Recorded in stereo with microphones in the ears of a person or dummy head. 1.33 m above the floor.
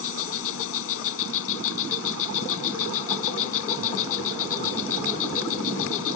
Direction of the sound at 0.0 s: 80° left.